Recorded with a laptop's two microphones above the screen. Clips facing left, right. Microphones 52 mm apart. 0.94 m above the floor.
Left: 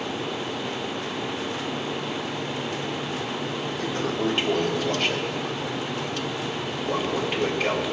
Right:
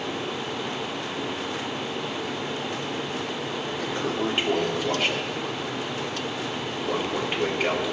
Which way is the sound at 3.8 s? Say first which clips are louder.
Left 1 dB; 15° right (ahead or behind).